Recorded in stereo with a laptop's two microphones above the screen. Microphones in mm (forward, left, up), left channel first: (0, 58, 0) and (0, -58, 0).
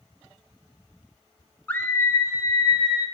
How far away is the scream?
About 1.3 m.